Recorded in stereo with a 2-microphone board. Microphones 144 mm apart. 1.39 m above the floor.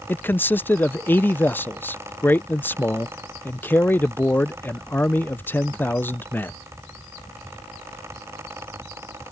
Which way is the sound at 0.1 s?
15° left (ahead or behind).